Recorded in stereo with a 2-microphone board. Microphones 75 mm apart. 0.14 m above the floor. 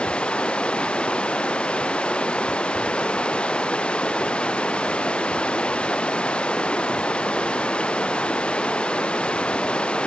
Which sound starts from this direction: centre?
Running water, at 0.0 s.